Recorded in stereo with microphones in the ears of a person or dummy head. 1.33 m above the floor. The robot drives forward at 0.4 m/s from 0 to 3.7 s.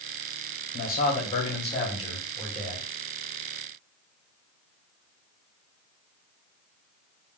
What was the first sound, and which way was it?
A man speaking, 50° left (ahead or behind).